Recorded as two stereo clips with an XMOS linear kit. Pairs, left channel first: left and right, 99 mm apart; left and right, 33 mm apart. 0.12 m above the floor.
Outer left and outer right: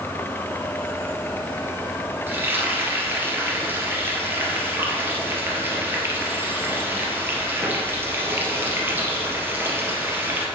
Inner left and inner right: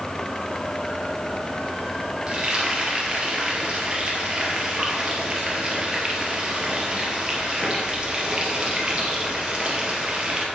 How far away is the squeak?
I don't hear a squeak.